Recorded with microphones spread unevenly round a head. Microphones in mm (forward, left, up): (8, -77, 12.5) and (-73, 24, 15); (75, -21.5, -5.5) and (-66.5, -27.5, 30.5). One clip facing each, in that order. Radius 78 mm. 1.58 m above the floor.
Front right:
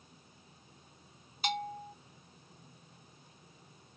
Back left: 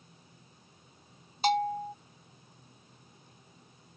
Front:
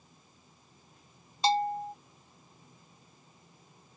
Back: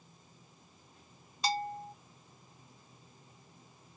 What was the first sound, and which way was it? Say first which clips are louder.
A bell: back left 9 dB, front 7 dB; 75° left.